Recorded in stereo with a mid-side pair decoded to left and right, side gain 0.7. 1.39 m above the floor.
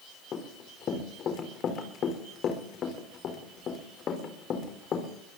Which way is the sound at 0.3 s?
45° left.